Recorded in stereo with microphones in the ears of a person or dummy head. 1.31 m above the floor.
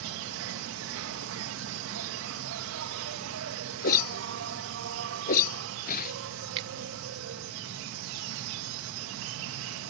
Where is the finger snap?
30° right (ahead or behind).